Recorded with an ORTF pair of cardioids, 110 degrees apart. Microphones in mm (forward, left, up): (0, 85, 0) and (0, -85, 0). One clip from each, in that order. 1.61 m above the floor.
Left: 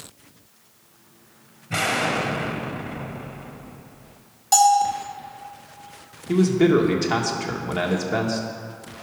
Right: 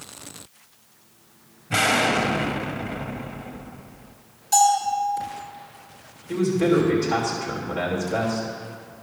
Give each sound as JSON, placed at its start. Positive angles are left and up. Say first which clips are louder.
{"t": 1.7, "sound": "an explosion", "louder": "right 3 dB", "azimuth_deg": -15, "distance_m": 0.7}
{"t": 4.5, "sound": "a bell", "louder": "left 2 dB", "azimuth_deg": 55, "distance_m": 2.0}
{"t": 6.3, "sound": "a man speaking", "louder": "left 2 dB", "azimuth_deg": 65, "distance_m": 1.9}